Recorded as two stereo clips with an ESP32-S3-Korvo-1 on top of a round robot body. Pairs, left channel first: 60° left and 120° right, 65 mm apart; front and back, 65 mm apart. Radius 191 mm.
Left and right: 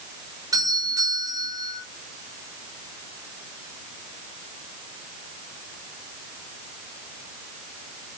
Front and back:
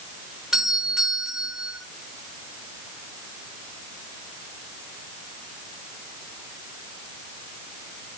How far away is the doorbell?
About 6 m.